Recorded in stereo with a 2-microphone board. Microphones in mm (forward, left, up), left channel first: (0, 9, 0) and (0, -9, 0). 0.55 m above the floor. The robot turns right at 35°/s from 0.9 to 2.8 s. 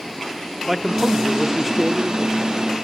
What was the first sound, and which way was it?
A man speaking, 40° right.